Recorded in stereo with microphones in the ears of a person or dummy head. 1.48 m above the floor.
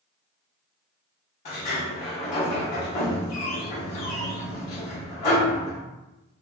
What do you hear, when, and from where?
1.4 s a sliding door: 40° left (ahead or behind), 0.8 m